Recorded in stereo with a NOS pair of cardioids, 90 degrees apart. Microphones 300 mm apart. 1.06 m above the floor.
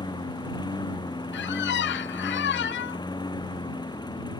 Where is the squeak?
40° left.